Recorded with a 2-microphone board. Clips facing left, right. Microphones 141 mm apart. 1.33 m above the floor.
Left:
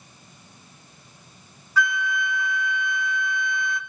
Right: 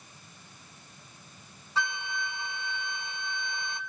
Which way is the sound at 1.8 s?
25° right (ahead or behind).